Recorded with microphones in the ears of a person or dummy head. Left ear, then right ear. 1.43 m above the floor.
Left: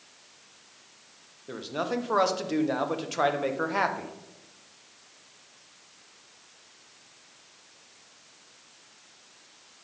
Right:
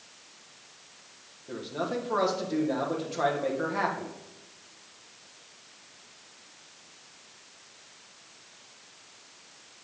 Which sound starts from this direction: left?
A man speaking, at 1.5 s.